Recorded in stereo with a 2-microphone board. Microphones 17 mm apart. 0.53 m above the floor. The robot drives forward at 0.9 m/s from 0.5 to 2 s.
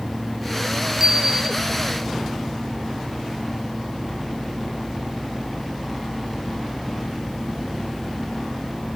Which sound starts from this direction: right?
A bicycle bell, at 1.0 s.